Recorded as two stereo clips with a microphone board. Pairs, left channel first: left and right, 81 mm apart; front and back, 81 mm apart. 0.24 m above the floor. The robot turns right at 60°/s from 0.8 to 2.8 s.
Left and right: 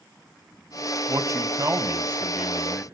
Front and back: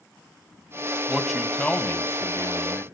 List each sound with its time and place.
1.1 s a man speaking: 105° right, 2.0 m; by 2.9 s straight ahead, 2.0 m